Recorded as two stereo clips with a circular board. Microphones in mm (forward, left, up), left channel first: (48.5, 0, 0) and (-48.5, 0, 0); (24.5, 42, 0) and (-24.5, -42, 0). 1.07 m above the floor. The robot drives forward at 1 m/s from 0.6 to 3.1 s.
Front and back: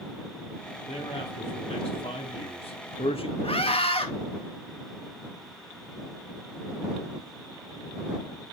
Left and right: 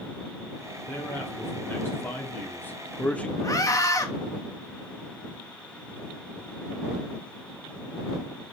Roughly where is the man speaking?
Ahead.